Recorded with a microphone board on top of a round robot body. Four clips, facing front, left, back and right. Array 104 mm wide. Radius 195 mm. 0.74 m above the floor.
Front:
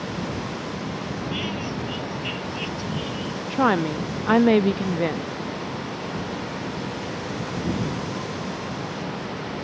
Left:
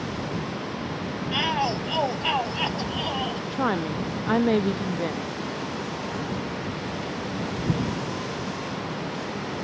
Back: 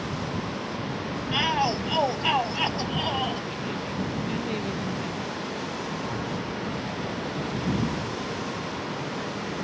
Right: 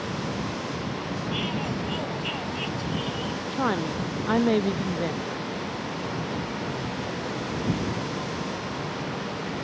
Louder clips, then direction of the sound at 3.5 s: Even, front 11 dB; 5° left.